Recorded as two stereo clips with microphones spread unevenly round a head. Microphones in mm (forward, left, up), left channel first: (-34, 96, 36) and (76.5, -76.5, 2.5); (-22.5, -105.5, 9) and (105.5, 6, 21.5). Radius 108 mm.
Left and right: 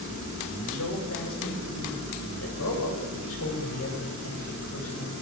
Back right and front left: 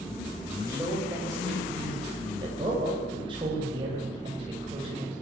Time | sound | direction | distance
0.7 | a man speaking | 120° left | 9 m